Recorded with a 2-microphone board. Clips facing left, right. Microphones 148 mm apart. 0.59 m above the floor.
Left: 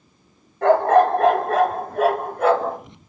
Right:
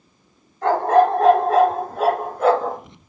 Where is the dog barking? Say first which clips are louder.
Left 1 dB; 65° left (ahead or behind), 4 m; by 2.8 s 60° left (ahead or behind), 2.5 m.